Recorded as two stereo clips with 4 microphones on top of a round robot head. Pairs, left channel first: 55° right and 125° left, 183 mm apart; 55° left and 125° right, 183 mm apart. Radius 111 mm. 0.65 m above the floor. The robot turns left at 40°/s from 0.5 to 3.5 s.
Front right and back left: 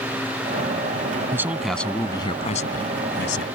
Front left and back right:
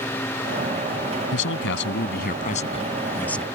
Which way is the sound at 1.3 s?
50° left.